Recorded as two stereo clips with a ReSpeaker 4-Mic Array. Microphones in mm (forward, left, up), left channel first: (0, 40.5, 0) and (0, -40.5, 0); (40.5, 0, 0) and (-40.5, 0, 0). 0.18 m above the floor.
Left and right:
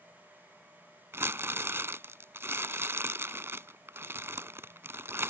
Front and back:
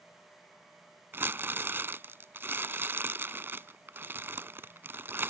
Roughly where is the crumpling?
Behind right.